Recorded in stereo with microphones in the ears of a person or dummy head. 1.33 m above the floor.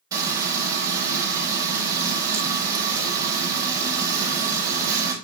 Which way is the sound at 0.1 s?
20° right (ahead or behind).